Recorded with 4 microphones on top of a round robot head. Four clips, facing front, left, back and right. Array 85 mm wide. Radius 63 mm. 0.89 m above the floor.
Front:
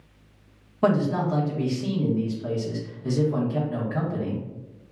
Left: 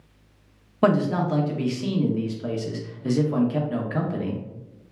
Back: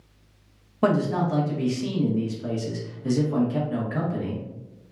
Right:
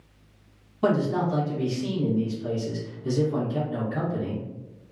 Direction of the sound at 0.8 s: 100° left.